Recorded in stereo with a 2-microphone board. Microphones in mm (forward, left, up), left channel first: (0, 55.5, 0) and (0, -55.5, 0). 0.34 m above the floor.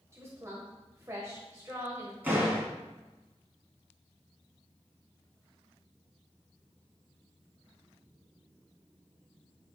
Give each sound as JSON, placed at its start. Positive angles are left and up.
{"t": 0.1, "sound": "a woman speaking", "side_deg": -25, "distance_m": 1.2}
{"t": 2.2, "sound": "a door slam", "side_deg": -15, "distance_m": 3.0}